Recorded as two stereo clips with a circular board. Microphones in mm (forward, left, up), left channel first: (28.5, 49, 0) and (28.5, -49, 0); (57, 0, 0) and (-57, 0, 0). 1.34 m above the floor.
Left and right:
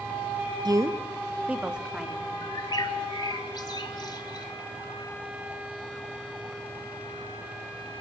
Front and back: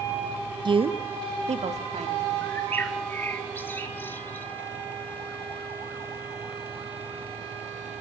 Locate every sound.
0.7 s a woman speaking: 135° right, 0.7 m; by 2.3 s 175° right, 3 m
2.4 s a bird: 65° left, 1.6 m